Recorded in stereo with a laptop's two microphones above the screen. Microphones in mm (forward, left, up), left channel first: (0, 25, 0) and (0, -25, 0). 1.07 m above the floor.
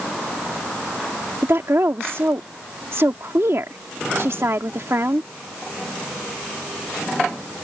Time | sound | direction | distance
1.4 | a woman speaking | 60° right (ahead or behind) | ?